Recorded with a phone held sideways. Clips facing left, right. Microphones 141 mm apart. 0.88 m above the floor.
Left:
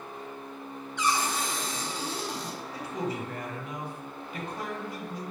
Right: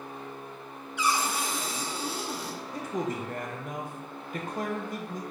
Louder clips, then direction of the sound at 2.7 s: Right 2 dB; 45° right (ahead or behind).